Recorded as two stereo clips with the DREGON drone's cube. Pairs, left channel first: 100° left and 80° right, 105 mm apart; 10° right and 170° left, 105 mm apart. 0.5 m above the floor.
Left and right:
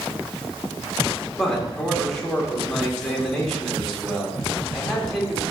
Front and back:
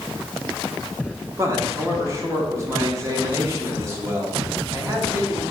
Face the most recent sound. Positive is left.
turn(degrees=-175)